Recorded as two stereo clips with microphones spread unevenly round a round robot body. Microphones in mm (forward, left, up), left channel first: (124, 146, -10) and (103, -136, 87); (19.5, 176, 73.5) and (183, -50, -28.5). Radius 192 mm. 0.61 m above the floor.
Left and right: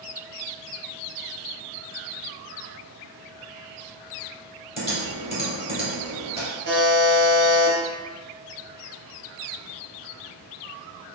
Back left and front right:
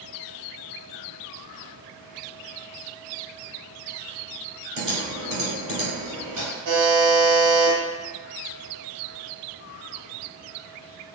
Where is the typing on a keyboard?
25° right, 1.8 m.